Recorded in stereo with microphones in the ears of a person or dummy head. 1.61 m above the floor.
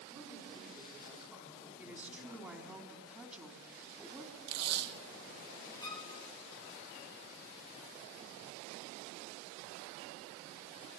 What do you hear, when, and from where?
0.1 s a woman speaking: 15° right (ahead or behind), 5.5 m; by 2.8 s centre (ahead or behind), 4.5 m
1.8 s a woman speaking: 10° right (ahead or behind), 3 m
4.5 s tape being pulled: 65° right (ahead or behind), 1.4 m
5.8 s a violin: 25° left (ahead or behind), 2 m